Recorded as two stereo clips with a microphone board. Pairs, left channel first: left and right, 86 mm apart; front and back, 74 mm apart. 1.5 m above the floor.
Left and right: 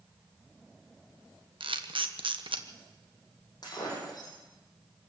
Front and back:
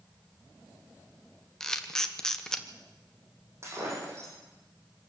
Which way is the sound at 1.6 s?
85° right.